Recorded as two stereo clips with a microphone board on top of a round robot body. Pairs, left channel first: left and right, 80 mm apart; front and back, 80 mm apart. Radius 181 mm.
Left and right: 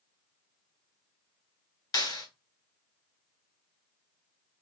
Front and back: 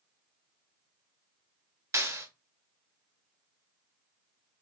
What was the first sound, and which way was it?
A clap, 125° left.